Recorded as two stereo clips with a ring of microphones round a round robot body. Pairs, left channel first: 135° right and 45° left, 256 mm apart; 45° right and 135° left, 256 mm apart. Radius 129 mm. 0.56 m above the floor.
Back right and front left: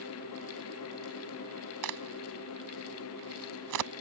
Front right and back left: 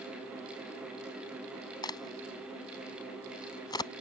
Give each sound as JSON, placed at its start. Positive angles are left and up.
{"t": 1.8, "sound": "a crack", "azimuth_deg": 30}